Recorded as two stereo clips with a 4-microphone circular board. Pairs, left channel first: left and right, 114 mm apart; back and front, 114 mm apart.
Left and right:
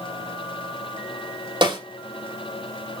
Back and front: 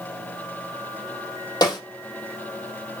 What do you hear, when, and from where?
1.6 s a snare drum: 130° right, 4.5 m